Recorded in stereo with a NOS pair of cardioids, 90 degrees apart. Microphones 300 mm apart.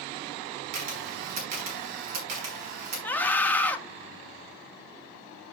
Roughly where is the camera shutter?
Ahead right.